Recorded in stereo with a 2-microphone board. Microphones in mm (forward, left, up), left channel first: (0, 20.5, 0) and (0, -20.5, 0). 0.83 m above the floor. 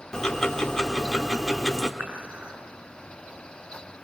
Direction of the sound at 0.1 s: 15° left (ahead or behind).